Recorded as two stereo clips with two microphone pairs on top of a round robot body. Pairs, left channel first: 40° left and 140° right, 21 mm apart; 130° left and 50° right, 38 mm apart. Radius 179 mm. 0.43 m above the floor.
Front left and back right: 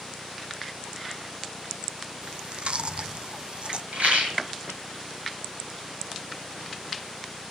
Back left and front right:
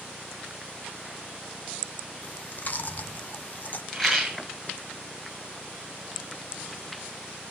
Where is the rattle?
145° right, 6.5 m.